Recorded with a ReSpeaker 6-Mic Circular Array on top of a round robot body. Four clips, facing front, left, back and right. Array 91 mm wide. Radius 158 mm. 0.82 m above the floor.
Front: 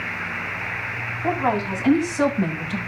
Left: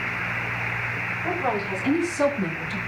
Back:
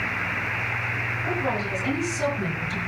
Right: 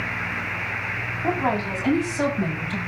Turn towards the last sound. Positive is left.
turn(degrees=-30)